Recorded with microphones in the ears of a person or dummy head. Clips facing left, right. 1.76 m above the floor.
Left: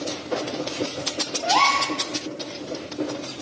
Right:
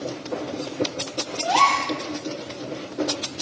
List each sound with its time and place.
1.4 s a gasp: 35° right (ahead or behind), 2.5 m